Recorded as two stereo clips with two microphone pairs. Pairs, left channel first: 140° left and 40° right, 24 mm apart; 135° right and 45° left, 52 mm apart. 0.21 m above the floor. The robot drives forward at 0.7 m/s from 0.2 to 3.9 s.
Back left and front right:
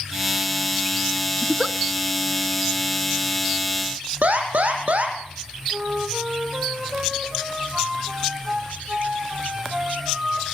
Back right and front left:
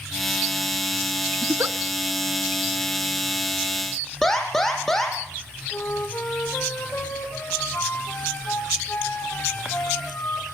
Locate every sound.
1.4 s a giggle: 15° left, 1.1 m; by 1.8 s 20° left, 0.9 m
4.2 s an alarm: 55° right, 5 m
5.7 s a flute: 90° right, 5 m